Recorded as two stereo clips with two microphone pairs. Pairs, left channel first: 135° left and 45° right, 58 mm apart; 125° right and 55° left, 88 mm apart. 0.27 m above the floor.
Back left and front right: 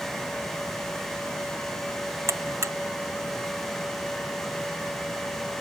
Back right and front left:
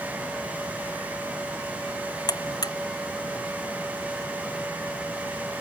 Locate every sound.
2.3 s a buzzer: 80° right